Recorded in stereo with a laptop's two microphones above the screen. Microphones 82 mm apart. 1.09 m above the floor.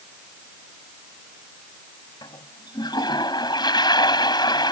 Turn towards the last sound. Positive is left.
turn(degrees=65)  # may be behind; listen again after turning